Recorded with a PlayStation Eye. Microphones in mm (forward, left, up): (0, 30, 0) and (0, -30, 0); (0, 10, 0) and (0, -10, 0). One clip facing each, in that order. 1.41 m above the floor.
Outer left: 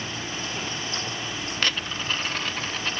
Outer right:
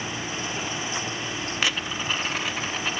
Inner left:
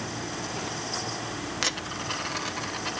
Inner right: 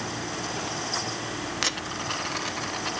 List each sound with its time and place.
1.6 s a dropped coin: 10° right (ahead or behind), 0.9 m